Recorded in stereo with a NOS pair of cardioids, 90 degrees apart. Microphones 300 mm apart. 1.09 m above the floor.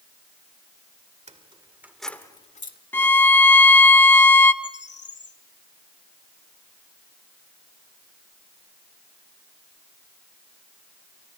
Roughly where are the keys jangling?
Ahead.